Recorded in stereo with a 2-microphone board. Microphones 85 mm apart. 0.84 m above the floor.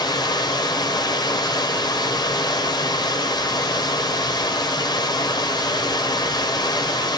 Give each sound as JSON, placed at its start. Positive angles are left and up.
{"t": 0.0, "sound": "running water", "side_deg": 55, "distance_m": 1.8}